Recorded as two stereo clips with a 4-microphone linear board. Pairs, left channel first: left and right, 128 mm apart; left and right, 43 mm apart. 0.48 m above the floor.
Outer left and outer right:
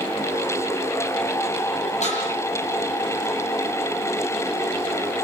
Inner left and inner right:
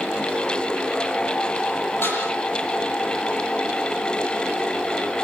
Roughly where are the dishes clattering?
Left.